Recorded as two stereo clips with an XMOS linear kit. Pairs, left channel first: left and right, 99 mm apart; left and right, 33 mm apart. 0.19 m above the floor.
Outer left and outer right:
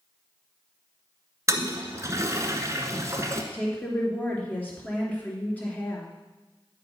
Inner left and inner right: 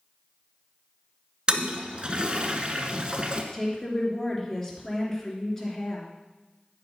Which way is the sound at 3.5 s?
15° left (ahead or behind).